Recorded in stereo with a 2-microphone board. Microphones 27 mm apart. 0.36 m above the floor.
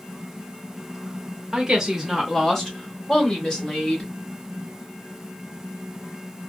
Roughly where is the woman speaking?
Centre.